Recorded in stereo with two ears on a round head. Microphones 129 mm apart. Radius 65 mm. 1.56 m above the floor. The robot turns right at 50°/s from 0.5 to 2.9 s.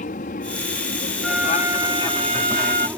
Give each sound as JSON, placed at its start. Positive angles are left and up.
{"t": 0.0, "sound": "an aircraft", "side_deg": 60}
{"t": 1.2, "sound": "a flute", "azimuth_deg": 180}